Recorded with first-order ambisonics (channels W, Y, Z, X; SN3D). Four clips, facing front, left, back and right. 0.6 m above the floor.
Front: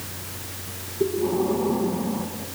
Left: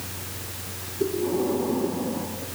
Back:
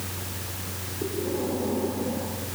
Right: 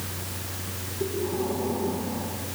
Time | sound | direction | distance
1.0 | breathing | 5° left | 6 m